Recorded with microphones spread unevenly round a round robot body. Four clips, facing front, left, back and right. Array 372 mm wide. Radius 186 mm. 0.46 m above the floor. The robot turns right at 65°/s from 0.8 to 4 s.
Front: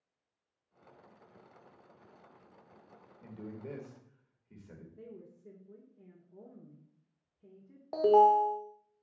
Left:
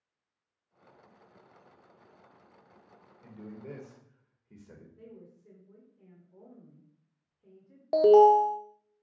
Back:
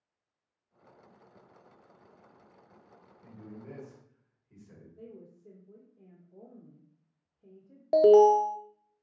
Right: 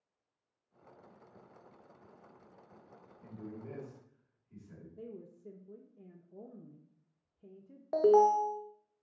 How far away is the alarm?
About 0.5 m.